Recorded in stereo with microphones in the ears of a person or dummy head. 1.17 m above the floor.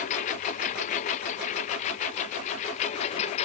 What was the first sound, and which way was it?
A lawn mower, 35° left (ahead or behind).